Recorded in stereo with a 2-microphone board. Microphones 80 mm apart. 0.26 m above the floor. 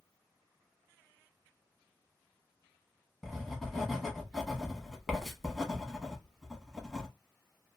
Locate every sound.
3.2 s writing: centre (ahead or behind), 0.9 m